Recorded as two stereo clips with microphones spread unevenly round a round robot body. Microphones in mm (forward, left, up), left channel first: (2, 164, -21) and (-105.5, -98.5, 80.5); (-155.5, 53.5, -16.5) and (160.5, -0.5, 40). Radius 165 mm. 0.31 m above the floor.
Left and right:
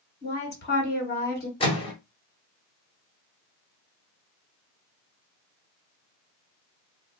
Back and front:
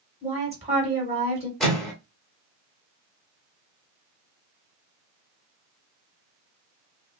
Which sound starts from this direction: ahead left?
A woman speaking, at 0.2 s.